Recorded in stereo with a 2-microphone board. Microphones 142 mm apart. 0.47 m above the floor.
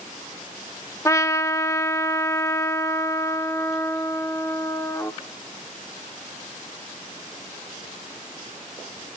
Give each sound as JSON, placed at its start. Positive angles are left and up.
{"t": 1.1, "sound": "a trumpet", "side_deg": 20, "distance_m": 0.6}